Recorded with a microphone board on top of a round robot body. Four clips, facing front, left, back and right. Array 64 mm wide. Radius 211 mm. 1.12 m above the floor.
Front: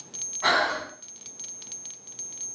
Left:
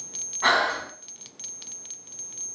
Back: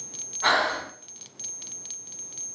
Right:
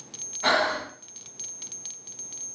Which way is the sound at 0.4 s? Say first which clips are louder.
Left 1 dB, even; 90° left.